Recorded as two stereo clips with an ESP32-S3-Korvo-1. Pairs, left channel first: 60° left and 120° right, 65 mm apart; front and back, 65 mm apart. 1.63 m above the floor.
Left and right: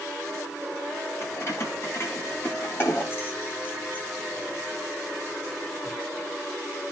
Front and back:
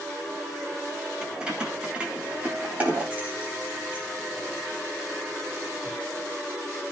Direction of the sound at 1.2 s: 100° left.